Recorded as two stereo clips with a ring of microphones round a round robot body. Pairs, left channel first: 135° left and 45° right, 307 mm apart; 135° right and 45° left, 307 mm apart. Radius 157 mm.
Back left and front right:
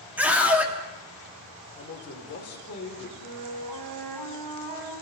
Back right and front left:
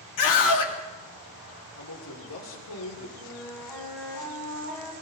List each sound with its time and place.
0.2 s a scream: 130° right, 2.5 m
1.8 s a man speaking: 170° right, 3.5 m
3.2 s a flute: 50° right, 4 m